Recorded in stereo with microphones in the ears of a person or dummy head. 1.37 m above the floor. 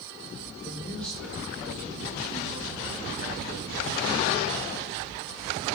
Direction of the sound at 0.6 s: 15° left (ahead or behind).